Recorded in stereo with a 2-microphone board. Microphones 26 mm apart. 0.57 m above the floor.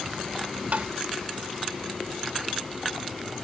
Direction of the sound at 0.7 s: 65° right (ahead or behind).